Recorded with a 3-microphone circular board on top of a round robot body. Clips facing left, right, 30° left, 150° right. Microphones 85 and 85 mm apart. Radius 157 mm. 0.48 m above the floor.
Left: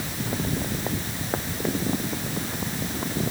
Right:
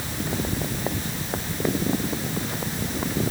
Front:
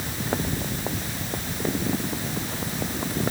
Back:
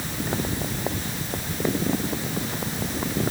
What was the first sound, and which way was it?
Only background noise.